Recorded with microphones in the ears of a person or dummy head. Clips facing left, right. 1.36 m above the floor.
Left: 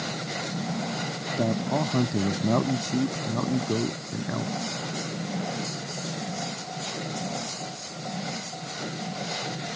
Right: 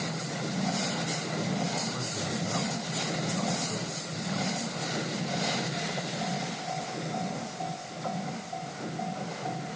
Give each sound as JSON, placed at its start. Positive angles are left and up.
{"t": 1.4, "sound": "a man speaking", "side_deg": 75}